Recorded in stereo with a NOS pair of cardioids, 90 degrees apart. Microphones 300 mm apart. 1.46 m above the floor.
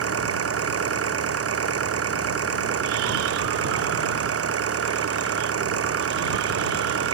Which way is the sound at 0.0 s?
50° right.